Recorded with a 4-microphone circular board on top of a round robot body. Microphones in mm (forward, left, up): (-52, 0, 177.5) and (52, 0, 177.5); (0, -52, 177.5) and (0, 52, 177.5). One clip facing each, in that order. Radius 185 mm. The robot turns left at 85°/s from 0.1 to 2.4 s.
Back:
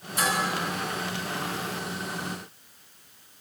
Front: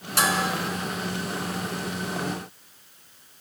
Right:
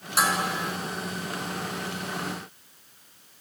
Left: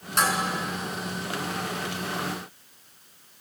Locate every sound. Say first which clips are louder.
0.2 s dishes clattering: front 3 dB, even; 5° right, 4.5 m; by 0.4 s 20° right, 4.5 m